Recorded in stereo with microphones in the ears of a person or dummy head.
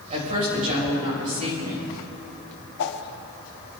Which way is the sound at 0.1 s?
40° right (ahead or behind).